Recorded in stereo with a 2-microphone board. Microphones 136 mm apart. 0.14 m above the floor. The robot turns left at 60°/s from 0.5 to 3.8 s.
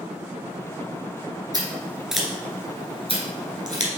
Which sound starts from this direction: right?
Scissors, at 1.5 s.